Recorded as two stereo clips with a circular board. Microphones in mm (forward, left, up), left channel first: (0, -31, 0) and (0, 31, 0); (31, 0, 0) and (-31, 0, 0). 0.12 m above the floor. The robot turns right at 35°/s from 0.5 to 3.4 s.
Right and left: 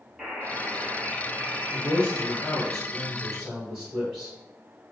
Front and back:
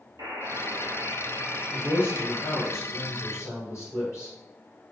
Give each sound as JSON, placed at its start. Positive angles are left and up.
{"t": 0.2, "sound": "a buzzer", "azimuth_deg": 175, "distance_m": 0.9}
{"t": 1.7, "sound": "a man speaking", "azimuth_deg": -50, "distance_m": 2.0}